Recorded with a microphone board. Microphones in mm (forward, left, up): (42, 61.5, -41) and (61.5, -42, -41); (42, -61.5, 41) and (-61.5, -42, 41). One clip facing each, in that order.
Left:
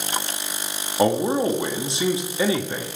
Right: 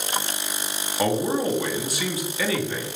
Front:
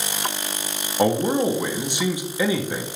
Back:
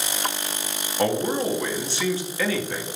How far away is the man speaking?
About 0.9 m.